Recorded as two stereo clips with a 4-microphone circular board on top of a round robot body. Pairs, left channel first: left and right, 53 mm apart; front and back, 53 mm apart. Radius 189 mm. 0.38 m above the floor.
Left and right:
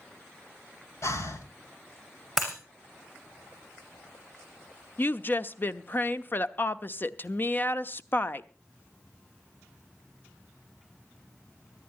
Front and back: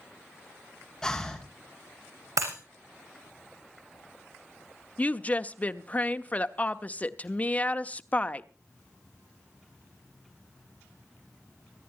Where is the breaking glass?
Straight behind, 5.5 m.